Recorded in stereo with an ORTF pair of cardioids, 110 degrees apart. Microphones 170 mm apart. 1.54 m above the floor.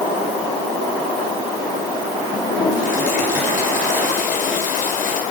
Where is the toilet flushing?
50° left, 7 m.